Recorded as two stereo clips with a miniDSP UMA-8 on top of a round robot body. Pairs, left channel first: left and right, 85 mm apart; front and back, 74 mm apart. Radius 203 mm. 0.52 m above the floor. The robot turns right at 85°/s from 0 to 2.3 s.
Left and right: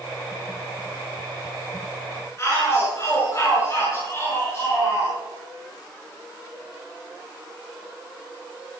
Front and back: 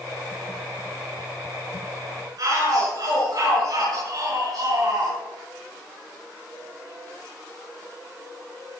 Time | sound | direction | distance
2.4 | a shout | 150° left | 7.5 m